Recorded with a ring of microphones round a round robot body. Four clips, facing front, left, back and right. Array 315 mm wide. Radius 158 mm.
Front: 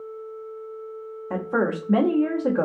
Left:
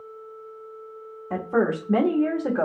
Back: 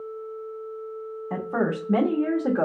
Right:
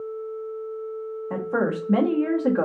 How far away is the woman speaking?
About 1.1 m.